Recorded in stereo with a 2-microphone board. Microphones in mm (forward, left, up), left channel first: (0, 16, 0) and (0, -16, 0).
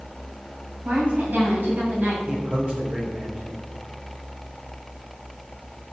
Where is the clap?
I don't hear a clap.